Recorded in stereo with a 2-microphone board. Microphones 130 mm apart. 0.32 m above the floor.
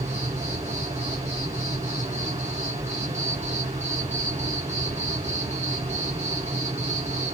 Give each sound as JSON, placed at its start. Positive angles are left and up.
{"t": 0.0, "sound": "an insect", "side_deg": -65, "distance_m": 1.4}